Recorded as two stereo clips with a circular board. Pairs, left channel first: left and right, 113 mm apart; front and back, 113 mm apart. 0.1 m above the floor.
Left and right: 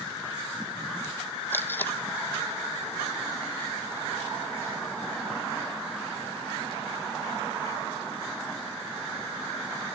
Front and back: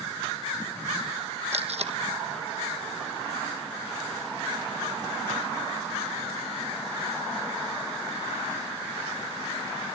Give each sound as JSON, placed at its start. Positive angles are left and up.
{"t": 1.5, "sound": "tape being pulled", "azimuth_deg": 160, "distance_m": 1.3}